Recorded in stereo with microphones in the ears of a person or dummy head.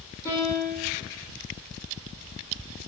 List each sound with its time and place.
0.2 s a piano: 15° left (ahead or behind), 1.4 m